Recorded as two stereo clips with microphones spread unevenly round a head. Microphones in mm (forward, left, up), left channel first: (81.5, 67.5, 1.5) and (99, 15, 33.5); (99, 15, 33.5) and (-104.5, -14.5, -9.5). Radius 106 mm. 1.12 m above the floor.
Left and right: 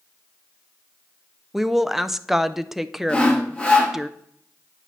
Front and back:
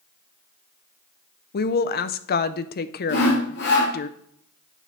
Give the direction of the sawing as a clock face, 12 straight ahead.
10 o'clock.